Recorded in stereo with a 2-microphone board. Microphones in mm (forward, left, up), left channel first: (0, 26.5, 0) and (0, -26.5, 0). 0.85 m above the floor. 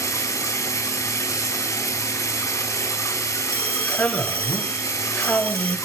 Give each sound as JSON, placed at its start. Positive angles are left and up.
{"t": 0.0, "sound": "running water", "side_deg": 80, "distance_m": 4.5}
{"t": 3.5, "sound": "a man speaking", "side_deg": 25, "distance_m": 3.0}